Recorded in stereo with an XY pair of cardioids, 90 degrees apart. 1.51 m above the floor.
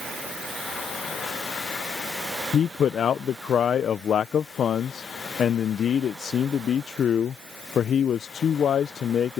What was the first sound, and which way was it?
A man speaking, 60° left.